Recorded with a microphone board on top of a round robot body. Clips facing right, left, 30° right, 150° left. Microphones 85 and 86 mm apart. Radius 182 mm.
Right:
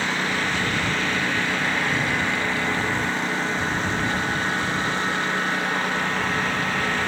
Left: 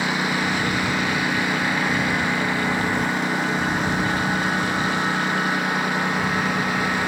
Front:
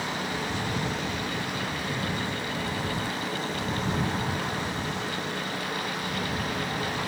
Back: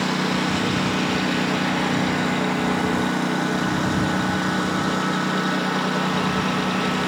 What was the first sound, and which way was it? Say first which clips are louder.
A lawn mower: left 2 dB, back 9 dB; 165° left.